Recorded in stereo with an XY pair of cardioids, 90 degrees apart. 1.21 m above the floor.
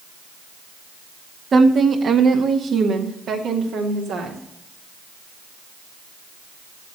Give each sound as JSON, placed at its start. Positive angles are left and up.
{"t": 1.5, "sound": "a woman speaking", "azimuth_deg": -45, "distance_m": 1.3}